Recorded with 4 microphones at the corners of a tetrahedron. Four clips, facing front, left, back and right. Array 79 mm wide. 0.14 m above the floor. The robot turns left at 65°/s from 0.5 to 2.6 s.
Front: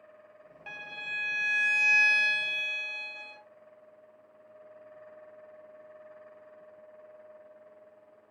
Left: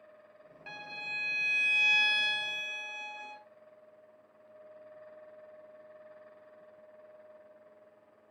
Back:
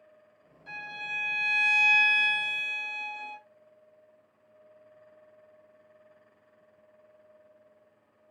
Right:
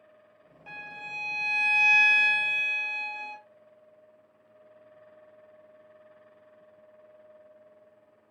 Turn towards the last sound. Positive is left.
turn(degrees=-100)